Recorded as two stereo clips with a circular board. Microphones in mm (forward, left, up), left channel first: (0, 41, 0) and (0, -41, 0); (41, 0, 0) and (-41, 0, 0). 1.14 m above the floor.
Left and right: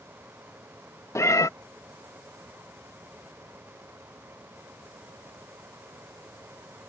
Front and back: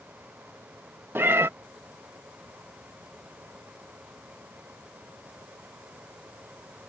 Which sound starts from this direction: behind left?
A cat meowing, at 1.1 s.